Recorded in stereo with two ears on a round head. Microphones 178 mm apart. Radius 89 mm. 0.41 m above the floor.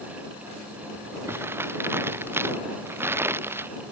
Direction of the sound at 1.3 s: 10° right (ahead or behind).